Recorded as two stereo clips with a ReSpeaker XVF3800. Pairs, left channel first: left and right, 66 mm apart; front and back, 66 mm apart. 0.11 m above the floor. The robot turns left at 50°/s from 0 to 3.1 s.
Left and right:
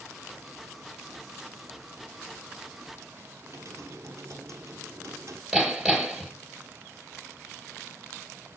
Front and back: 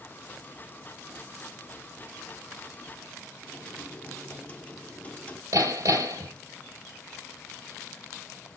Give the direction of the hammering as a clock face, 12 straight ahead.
6 o'clock.